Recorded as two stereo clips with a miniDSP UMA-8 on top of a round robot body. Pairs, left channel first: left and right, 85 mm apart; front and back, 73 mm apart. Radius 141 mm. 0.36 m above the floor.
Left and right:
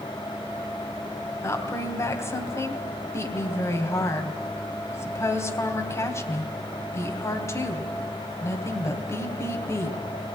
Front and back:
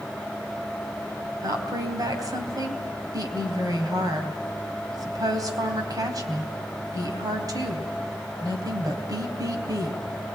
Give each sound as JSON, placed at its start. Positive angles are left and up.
{"t": 1.4, "sound": "a woman speaking", "azimuth_deg": 145, "distance_m": 3.0}